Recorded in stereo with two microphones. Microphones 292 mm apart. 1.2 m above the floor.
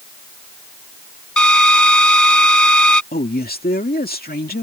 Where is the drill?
80° left.